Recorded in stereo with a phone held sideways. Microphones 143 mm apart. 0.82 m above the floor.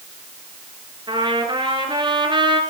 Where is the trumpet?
30° right (ahead or behind), 5 m.